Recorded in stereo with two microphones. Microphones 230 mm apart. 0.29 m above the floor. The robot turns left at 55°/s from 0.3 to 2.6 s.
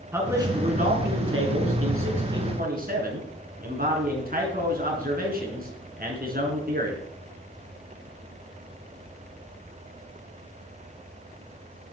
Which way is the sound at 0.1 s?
10° right.